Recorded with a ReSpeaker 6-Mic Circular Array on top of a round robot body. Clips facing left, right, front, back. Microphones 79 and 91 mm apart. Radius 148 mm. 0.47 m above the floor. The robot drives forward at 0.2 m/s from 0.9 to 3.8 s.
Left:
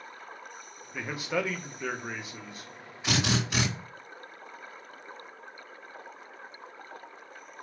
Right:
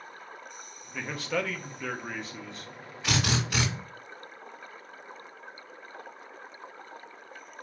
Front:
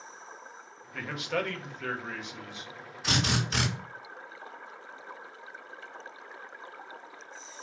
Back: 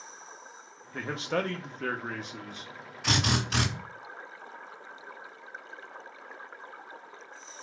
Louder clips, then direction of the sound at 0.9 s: Even, back 2 dB; 155° left.